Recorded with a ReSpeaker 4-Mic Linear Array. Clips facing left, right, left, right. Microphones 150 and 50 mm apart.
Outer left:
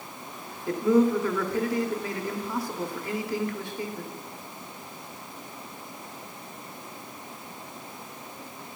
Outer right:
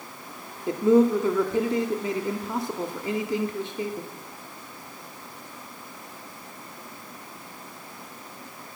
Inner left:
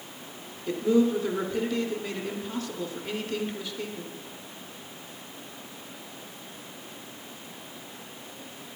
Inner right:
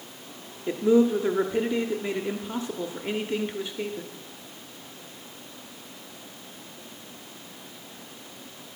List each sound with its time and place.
0.7 s a man speaking: 20° right (ahead or behind), 0.8 m